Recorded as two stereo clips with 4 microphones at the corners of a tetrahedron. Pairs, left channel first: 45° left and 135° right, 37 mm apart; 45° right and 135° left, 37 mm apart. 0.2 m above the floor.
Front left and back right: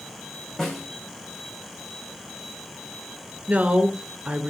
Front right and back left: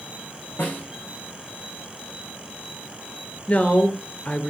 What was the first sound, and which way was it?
A snare drum, 30° right.